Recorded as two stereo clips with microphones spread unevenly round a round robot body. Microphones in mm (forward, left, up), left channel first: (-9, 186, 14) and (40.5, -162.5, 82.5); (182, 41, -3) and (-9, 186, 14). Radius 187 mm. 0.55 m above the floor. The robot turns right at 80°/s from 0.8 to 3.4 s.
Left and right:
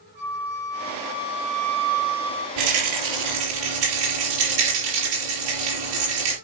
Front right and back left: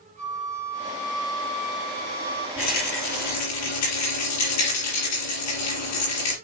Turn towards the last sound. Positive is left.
turn(degrees=-35)